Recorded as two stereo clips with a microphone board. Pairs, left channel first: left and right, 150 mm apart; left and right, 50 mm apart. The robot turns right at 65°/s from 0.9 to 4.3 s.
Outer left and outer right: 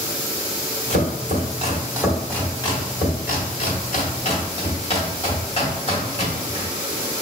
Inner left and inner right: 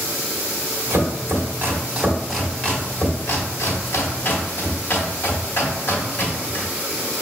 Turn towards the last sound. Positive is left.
turn(degrees=45)  # may be behind; listen again after turning